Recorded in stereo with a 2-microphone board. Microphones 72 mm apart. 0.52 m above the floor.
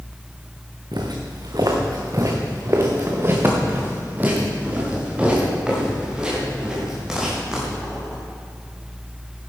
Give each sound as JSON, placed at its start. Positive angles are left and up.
{"t": 0.9, "sound": "footsteps", "side_deg": -70, "distance_m": 2.5}